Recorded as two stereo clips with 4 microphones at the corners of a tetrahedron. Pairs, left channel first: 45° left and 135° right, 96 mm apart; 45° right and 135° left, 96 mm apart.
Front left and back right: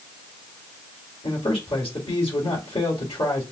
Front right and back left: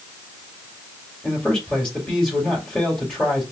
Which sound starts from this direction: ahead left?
A man speaking, at 1.2 s.